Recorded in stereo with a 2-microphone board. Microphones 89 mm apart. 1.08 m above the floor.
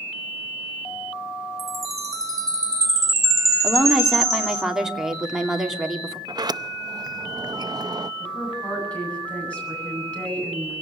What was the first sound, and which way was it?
A chime, 40° right (ahead or behind).